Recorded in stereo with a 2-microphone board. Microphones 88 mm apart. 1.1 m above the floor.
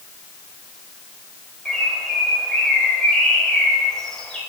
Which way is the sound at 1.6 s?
5° left (ahead or behind).